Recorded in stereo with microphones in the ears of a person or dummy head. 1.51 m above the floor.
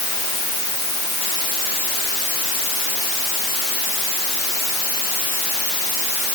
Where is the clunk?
I don't hear a clunk.